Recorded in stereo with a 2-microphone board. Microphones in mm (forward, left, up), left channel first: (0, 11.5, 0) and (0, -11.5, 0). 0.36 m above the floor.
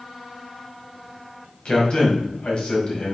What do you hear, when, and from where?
1.6 s a man speaking: 50° left (ahead or behind), 2.0 m